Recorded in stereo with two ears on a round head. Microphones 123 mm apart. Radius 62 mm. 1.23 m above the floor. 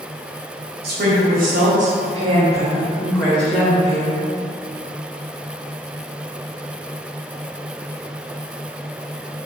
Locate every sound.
0.8 s a woman speaking: 85° right, 1.0 m; by 4.2 s 30° left (ahead or behind), 1.0 m